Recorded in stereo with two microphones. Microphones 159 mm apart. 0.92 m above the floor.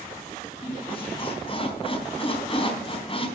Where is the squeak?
35° left (ahead or behind), 4 m.